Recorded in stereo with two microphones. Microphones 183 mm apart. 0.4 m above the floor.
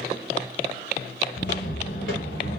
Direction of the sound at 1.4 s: 75° left (ahead or behind).